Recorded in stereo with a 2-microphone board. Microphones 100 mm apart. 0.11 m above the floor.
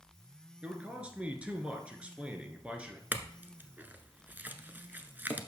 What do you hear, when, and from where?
0.6 s a man speaking: 10° right (ahead or behind), 1.4 m
3.1 s a clink: 20° right (ahead or behind), 0.7 m